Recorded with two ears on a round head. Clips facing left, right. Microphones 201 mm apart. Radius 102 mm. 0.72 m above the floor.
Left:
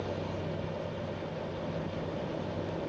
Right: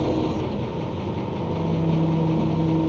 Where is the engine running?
85° right.